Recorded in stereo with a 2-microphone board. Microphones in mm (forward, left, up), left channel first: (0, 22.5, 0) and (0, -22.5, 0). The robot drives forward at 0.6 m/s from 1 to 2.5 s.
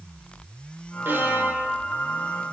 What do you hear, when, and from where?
1.1 s a violin: 55° right (ahead or behind), 2.5 m; by 1.8 s 45° right (ahead or behind), 2.5 m